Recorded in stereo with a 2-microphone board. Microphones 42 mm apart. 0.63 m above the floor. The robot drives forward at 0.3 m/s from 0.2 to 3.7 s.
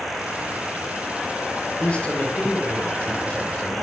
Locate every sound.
1.8 s a man speaking: 25° left (ahead or behind), 1.9 m; by 3.8 s 20° left (ahead or behind), 2.5 m